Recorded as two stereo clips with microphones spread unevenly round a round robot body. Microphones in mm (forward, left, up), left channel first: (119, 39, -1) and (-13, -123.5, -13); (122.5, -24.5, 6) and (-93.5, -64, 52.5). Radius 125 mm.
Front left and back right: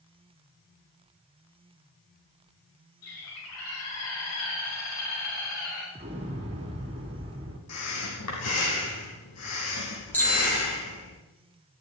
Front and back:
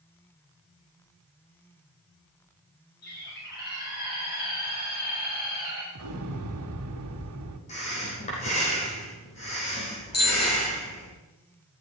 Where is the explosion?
165° left, 2.0 m.